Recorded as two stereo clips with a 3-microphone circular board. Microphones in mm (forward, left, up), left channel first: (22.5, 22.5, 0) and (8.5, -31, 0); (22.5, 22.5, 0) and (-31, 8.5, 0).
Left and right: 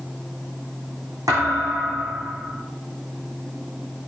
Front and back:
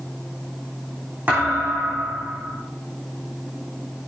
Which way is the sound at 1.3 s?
100° right.